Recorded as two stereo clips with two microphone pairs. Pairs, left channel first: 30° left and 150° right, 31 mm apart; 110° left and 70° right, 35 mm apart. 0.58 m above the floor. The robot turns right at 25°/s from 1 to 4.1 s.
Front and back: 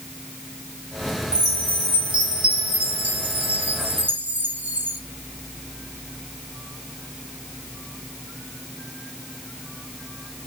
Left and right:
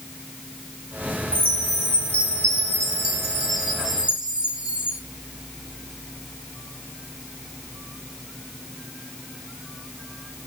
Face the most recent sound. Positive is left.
turn(degrees=-145)